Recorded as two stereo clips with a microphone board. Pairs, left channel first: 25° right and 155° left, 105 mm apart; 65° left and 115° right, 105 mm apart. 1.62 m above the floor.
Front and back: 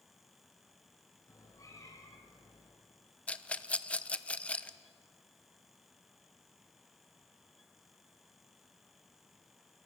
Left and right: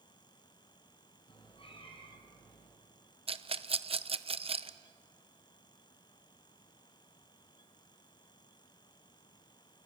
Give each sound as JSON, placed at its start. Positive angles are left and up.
{"t": 1.3, "sound": "a cat meowing", "azimuth_deg": 35, "distance_m": 5.0}
{"t": 3.3, "sound": "a rattle", "azimuth_deg": -100, "distance_m": 0.9}